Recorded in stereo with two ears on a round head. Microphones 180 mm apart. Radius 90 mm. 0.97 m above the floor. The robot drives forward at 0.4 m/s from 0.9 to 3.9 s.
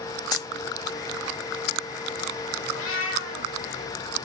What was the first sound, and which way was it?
A dropped coin, 20° left (ahead or behind).